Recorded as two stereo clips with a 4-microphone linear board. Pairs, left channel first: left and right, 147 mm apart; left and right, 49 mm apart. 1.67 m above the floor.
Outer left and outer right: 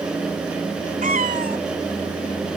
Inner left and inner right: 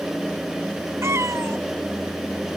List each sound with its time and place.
1.0 s a cat meowing: 65° right (ahead or behind)